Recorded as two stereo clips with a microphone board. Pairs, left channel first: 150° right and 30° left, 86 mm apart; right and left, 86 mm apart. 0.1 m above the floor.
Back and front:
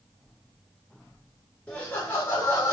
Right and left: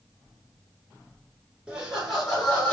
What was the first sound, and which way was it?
Laughter, 155° left.